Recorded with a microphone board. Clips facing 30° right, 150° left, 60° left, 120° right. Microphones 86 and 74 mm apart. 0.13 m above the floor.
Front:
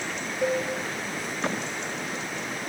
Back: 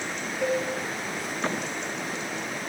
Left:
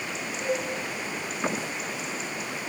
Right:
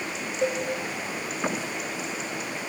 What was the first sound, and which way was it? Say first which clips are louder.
A cowbell: even, right 3 dB; 105° right.